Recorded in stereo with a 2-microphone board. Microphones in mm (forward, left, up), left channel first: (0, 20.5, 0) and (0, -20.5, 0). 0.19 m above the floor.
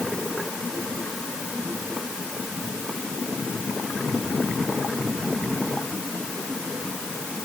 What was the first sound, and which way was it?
Only background noise.